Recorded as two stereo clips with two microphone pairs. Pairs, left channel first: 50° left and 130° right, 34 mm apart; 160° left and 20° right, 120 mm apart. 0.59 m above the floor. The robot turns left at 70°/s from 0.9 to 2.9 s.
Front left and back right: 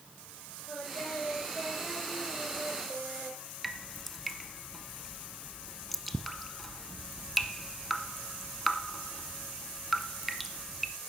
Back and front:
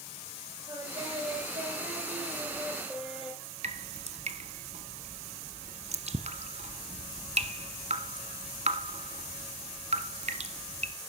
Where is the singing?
30° left, 6 m; by 3.4 s 110° right, 6 m.